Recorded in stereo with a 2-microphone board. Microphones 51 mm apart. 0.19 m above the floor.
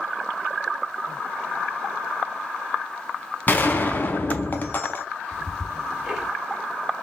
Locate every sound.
3.5 s a gunshot: 40° left (ahead or behind), 0.9 m
5.3 s ticking: 10° right (ahead or behind), 2 m